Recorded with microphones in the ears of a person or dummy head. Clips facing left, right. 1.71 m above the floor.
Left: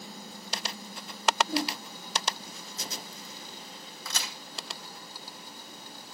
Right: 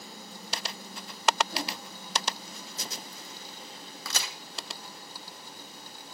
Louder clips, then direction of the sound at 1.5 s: Left 6 dB; 50° left (ahead or behind).